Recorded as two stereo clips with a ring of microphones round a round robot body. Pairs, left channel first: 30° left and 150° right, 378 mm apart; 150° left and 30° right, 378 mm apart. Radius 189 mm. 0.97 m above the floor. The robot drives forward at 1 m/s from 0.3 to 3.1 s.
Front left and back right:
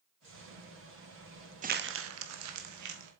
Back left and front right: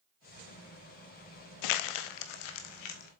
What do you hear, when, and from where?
1.6 s crumpling: 140° left, 0.7 m; by 3.1 s 165° left, 2 m